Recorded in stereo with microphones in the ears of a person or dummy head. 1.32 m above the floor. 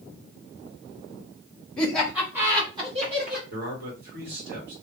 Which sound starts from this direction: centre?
Laughter, at 1.8 s.